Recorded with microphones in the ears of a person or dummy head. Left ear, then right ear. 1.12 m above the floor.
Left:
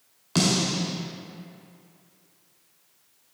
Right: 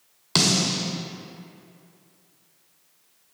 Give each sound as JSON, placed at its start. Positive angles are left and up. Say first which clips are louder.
{"t": 0.3, "sound": "a snare drum", "louder": "right 3 dB", "side_deg": -30, "distance_m": 1.7}